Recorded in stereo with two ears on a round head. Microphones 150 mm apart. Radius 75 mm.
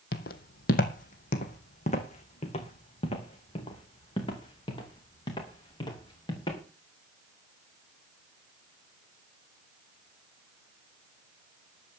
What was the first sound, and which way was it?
Footsteps, 60° left (ahead or behind).